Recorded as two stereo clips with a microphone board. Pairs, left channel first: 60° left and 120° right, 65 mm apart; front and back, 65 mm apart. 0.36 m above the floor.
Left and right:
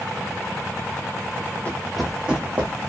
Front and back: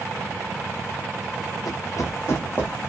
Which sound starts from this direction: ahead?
Running footsteps, at 1.6 s.